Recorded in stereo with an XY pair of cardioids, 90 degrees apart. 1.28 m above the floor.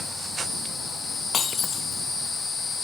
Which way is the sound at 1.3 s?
60° left.